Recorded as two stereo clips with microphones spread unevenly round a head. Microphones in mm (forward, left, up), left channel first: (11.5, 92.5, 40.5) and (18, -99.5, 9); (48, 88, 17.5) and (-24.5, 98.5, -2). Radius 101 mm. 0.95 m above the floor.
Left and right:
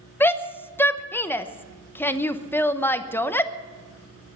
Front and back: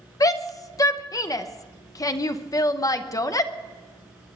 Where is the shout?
5° left, 1.0 m.